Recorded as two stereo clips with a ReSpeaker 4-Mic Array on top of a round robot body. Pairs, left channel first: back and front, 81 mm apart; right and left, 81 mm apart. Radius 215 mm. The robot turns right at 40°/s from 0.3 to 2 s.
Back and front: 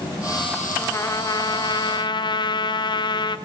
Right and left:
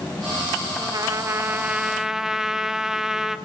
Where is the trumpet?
125° left, 0.5 m; by 3.4 s 175° left, 0.5 m.